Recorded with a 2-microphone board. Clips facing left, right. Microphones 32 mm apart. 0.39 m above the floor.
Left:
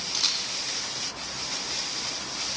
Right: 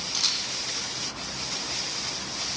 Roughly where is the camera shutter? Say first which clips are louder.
Even; centre.